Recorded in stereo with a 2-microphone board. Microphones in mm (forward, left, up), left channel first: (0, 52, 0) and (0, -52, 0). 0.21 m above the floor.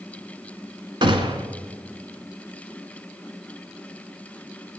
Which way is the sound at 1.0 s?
50° right (ahead or behind).